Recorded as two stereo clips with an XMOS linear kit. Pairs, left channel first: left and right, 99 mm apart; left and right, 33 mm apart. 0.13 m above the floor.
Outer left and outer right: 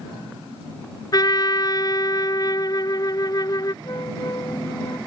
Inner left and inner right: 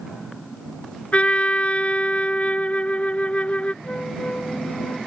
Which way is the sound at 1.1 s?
45° left (ahead or behind).